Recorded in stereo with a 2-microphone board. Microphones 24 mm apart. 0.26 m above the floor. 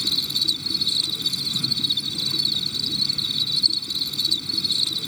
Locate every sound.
0.0 s an insect: 10° left (ahead or behind)